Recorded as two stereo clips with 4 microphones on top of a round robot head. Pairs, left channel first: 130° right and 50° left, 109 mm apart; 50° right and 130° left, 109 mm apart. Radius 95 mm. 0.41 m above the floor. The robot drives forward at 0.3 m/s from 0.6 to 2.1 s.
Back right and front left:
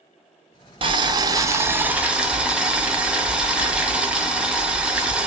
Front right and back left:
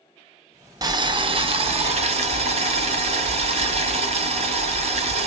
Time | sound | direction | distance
0.8 | boiling | 80° left | 0.5 m